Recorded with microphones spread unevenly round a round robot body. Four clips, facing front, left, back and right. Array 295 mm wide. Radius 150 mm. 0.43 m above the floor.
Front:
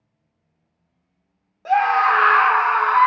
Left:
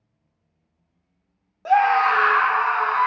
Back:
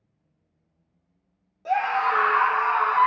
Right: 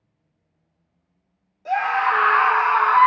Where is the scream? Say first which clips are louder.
Left 4 dB, front 6 dB; 70° left, 0.9 m; by 3.1 s 55° right, 1.1 m.